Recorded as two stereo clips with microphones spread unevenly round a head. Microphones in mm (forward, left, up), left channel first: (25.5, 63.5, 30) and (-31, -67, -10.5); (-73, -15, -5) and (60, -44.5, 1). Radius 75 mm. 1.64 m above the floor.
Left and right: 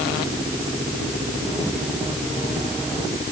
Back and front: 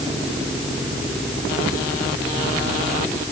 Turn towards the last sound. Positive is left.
No sound to turn to.